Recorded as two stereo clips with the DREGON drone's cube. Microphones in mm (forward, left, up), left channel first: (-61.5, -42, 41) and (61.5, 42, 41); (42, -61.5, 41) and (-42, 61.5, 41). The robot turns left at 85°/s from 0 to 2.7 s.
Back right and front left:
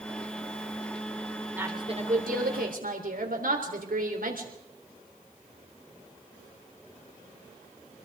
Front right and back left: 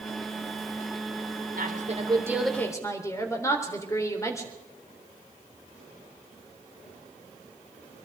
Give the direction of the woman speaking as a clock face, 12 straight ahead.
8 o'clock.